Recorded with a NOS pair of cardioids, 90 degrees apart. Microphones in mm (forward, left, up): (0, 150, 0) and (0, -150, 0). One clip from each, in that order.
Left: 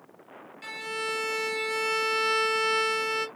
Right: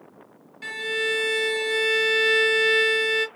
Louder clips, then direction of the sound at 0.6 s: Right 7 dB; 20° right.